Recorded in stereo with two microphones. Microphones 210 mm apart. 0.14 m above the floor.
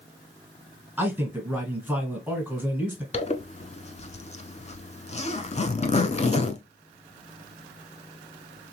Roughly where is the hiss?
I don't hear a hiss.